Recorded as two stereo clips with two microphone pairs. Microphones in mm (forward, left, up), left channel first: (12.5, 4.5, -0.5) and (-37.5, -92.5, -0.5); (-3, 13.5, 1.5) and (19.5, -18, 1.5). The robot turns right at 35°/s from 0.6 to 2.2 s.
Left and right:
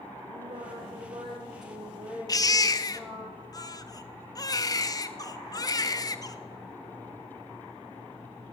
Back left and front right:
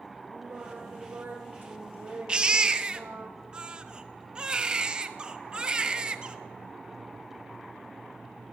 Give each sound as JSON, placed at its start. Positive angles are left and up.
{"t": 0.3, "sound": "singing", "azimuth_deg": -105, "distance_m": 3.5}
{"t": 2.3, "sound": "a baby crying", "azimuth_deg": 5, "distance_m": 0.7}